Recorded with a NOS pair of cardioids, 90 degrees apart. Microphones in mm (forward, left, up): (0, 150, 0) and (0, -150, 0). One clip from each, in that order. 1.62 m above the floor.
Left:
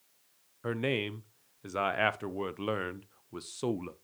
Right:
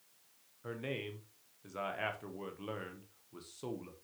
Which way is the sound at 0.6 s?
55° left.